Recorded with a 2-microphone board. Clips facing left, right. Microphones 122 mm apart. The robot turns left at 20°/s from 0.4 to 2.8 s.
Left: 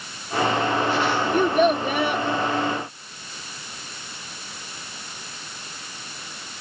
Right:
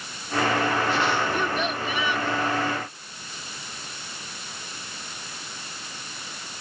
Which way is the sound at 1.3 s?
45° left (ahead or behind).